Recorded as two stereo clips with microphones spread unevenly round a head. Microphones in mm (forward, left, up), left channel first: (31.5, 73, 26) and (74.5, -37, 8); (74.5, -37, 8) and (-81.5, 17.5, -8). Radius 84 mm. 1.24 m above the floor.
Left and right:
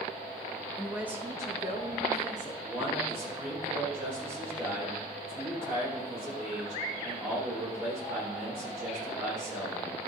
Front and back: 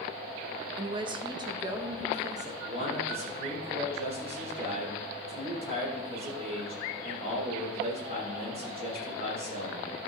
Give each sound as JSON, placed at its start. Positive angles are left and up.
{"t": 0.8, "sound": "a woman speaking", "azimuth_deg": -155, "distance_m": 0.6}
{"t": 2.6, "sound": "a man speaking", "azimuth_deg": -145, "distance_m": 3.5}